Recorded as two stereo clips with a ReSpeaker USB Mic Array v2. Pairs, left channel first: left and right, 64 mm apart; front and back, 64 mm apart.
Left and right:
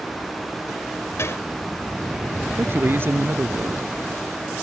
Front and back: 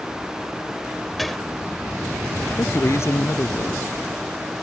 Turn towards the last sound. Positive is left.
turn(degrees=-40)